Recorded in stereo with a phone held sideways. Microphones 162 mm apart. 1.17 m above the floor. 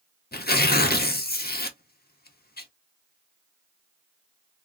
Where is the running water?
I don't hear running water.